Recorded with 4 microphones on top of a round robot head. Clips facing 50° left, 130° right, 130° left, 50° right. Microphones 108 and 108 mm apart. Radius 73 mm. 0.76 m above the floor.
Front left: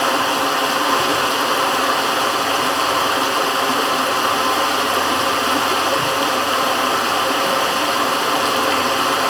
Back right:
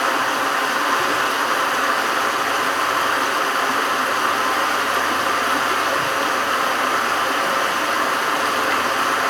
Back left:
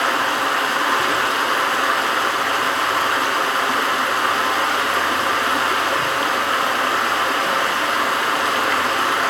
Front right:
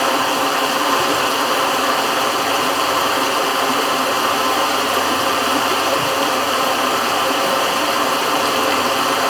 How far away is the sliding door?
I don't hear a sliding door.